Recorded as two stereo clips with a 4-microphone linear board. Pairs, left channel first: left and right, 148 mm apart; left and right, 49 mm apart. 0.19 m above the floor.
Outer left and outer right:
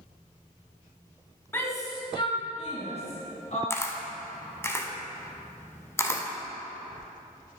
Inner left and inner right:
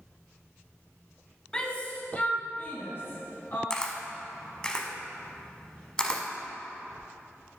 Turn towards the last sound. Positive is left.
turn(degrees=15)  # may be behind; listen again after turning